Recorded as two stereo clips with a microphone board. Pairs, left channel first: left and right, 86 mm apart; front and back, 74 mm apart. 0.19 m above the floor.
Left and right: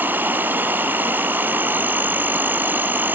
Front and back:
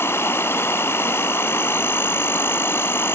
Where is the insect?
35° right, 0.7 m.